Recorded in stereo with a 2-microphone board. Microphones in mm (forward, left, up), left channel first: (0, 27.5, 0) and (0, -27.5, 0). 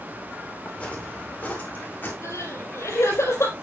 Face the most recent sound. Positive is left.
turn(degrees=70)  # may be behind; listen again after turning